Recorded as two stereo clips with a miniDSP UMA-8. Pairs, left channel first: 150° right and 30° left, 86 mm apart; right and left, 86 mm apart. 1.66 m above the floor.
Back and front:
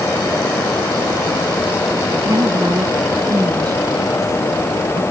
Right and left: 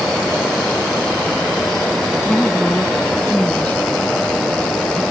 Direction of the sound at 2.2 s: 15° right.